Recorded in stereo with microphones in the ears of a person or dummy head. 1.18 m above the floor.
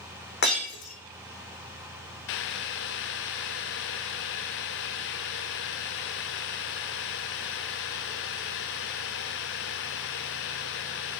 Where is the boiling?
55° left (ahead or behind), 0.8 m.